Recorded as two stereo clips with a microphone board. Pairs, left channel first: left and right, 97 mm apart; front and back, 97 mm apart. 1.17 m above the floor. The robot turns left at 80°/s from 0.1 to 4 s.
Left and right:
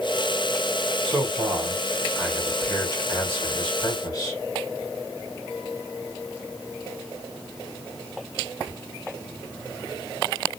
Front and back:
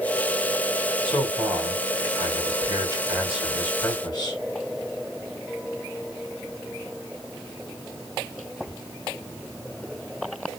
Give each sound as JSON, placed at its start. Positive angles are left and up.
{"t": 1.1, "sound": "a man speaking", "azimuth_deg": -80, "distance_m": 3.0}